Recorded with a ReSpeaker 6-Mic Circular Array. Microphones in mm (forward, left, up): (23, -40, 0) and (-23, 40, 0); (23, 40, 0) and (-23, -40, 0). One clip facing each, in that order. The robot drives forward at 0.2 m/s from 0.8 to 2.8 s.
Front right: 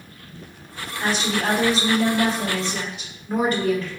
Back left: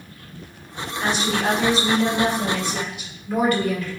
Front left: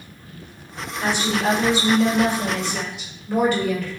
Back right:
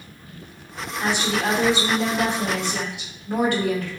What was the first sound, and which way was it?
A woman speaking, 105° right.